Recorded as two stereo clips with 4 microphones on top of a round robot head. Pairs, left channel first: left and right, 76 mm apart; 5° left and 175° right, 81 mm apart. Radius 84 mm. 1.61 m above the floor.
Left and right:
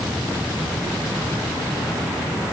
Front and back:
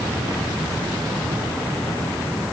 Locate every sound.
Only background noise.